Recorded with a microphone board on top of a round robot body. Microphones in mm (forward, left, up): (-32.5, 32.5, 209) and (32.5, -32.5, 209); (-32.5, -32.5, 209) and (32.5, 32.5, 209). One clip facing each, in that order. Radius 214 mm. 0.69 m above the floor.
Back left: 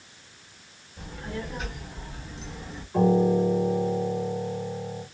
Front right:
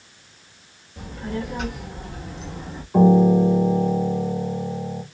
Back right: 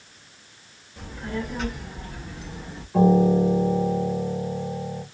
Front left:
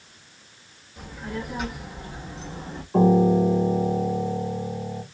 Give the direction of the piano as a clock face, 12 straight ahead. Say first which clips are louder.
Front right 6 dB, even; 12 o'clock.